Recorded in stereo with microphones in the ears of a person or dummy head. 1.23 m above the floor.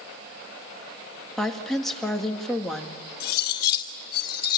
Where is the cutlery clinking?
70° left (ahead or behind), 2 m.